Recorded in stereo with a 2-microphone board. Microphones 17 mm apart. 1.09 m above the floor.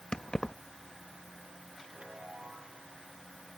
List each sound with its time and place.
0.1 s keys jangling: 65° left (ahead or behind)
1.9 s a chime: 85° right